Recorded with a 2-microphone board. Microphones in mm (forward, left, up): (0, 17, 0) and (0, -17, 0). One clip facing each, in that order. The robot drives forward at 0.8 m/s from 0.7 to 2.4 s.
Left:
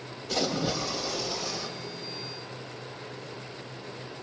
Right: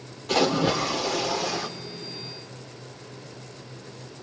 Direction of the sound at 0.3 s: 65° right (ahead or behind).